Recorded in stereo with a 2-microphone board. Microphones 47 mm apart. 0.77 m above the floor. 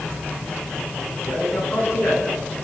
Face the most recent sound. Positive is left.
turn(degrees=65)  # may be behind; listen again after turning